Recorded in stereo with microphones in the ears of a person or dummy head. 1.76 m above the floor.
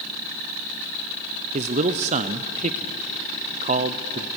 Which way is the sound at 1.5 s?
40° right (ahead or behind).